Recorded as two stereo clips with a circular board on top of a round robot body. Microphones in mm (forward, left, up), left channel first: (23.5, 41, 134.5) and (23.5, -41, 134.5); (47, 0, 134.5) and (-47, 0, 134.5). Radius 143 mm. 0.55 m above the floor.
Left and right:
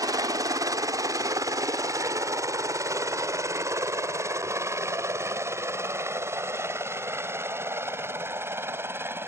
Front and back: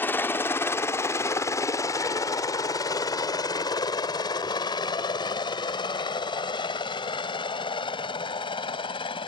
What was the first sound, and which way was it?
A helicopter, 65° right.